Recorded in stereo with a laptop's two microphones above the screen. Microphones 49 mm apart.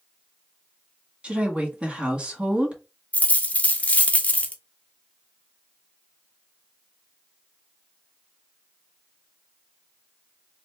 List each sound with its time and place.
1.2 s a woman speaking: 20° right (ahead or behind), 2.0 m
3.1 s a dropped coin: 30° left (ahead or behind), 0.5 m